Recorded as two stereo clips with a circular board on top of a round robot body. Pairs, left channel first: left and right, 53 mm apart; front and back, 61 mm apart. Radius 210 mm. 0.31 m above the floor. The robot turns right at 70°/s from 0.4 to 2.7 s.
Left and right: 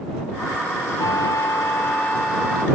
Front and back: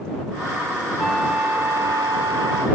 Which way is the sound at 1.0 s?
80° left.